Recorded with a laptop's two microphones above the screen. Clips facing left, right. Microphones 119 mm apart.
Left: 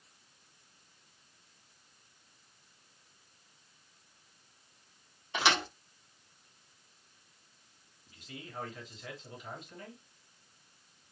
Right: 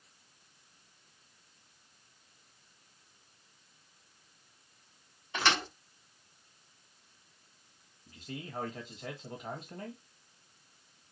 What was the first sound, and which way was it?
A thud, 10° left (ahead or behind).